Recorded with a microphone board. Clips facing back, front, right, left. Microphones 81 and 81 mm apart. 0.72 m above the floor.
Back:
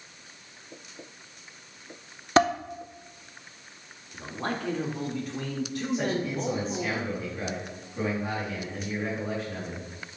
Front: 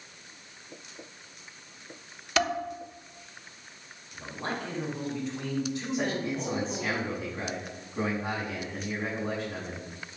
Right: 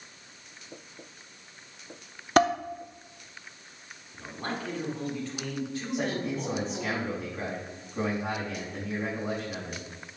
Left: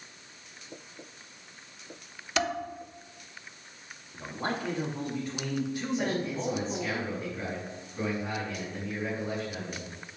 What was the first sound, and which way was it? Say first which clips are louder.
Dishes clattering: back 6 dB, right 8 dB; 130° right.